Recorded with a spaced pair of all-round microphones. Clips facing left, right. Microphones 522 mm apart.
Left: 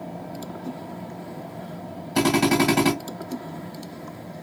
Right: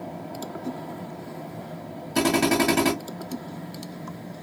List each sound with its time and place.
2.1 s a drill: centre (ahead or behind), 2.5 m